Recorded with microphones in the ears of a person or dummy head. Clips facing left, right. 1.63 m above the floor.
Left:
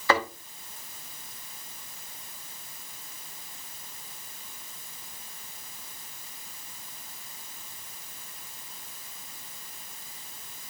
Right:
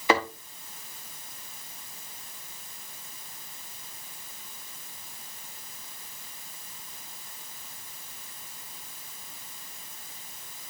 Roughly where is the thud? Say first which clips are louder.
Right 1 dB; centre.